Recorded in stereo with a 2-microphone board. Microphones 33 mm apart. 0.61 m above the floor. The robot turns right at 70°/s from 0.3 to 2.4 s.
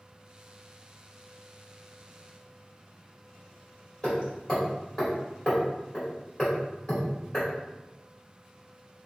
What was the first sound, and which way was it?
Hammering, 30° left (ahead or behind).